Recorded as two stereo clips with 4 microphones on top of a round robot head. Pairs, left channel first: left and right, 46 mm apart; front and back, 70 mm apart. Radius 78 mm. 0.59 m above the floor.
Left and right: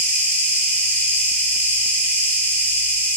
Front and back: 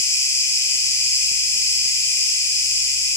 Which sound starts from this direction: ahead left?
An insect, at 0.0 s.